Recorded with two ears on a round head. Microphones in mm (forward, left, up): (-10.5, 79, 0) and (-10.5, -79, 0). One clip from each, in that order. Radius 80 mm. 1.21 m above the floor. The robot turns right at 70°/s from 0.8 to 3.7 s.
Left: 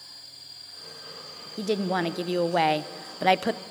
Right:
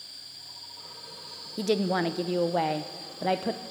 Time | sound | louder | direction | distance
1.6 | a woman speaking | even | 15° right | 0.6 m